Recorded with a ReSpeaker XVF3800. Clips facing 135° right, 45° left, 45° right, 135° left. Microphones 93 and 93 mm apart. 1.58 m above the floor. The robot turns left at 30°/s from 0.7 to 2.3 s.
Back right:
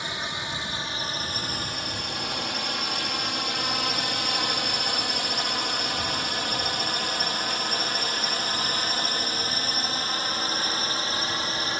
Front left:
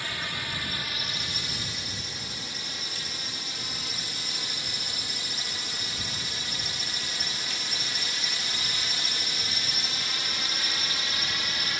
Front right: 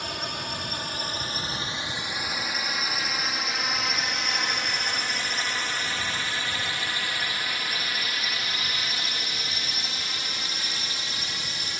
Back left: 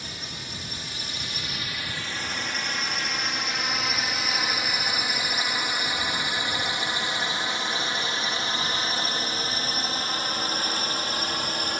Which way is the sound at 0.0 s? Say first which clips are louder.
Back right 3 dB, front right 7 dB; 65° right.